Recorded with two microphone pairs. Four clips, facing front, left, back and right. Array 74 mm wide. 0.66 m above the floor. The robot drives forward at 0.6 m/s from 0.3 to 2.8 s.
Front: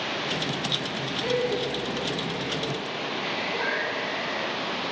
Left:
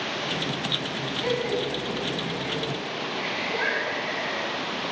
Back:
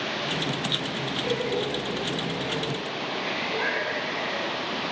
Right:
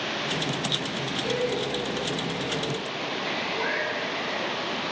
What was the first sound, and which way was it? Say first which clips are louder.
Laughter: left 1 dB, front 2 dB; 75° left.